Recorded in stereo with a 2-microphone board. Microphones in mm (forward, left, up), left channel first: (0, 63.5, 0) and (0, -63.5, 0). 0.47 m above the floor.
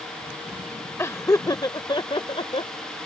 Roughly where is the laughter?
Left.